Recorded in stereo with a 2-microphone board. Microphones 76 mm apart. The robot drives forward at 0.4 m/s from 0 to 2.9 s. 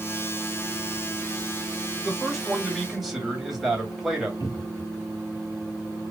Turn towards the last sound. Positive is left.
turn(degrees=50)  # may be behind; listen again after turning